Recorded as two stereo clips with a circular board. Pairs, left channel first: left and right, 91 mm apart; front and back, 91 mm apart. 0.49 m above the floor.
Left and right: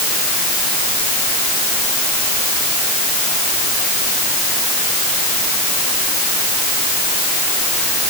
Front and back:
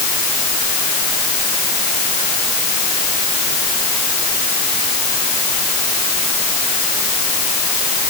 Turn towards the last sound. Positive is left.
No sound to turn to.